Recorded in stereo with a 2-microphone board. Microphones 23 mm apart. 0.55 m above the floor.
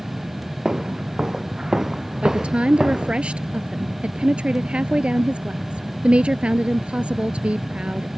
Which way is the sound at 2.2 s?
60° right (ahead or behind).